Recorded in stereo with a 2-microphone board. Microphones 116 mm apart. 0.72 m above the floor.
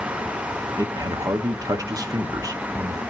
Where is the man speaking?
30° right (ahead or behind), 1.3 m.